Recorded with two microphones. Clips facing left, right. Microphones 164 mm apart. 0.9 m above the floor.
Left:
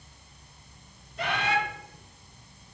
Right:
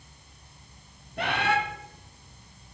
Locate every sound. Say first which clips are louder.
1.2 s a bird: right 2 dB; 65° right (ahead or behind), 2.5 m